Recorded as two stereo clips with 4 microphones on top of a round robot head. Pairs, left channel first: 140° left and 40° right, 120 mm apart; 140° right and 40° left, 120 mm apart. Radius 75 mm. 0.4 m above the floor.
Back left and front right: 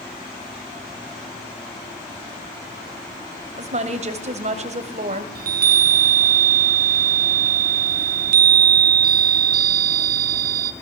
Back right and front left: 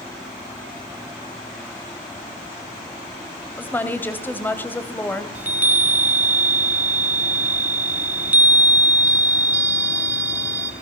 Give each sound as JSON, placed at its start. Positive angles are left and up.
{"t": 3.6, "sound": "a woman speaking", "azimuth_deg": -65, "distance_m": 3.0}
{"t": 5.3, "sound": "a chime", "azimuth_deg": -35, "distance_m": 1.2}